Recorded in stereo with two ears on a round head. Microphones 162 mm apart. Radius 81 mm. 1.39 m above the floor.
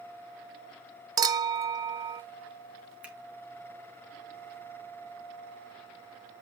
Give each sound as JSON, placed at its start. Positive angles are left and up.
{"t": 1.2, "sound": "a clink", "side_deg": -20, "distance_m": 0.6}
{"t": 3.0, "sound": "a finger snap", "side_deg": -5, "distance_m": 2.0}